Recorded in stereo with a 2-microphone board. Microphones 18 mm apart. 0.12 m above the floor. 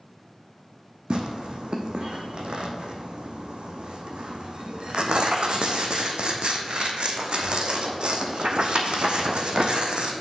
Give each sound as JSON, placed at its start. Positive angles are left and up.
{"t": 1.1, "sound": "tearing paper", "side_deg": -65, "distance_m": 1.1}